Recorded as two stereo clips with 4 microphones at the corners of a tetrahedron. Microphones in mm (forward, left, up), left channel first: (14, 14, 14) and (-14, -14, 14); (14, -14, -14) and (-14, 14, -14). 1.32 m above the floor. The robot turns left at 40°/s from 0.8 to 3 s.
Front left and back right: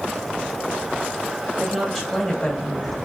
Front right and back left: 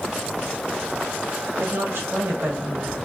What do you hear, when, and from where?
1.6 s a woman speaking: 140° left, 1.3 m; by 3.0 s 85° left, 1.3 m